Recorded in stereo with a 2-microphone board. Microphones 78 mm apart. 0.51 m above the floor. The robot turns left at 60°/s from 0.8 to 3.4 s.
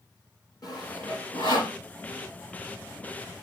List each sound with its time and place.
0.6 s sawing: 45° left (ahead or behind), 6.5 m; by 1.8 s 75° left (ahead or behind), 6.5 m